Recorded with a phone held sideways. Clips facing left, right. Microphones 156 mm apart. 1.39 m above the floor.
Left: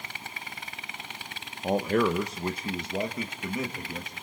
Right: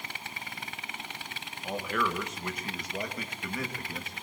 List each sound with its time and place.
1.6 s a man speaking: 45° left (ahead or behind), 1.2 m; by 4.1 s 15° left (ahead or behind), 2.5 m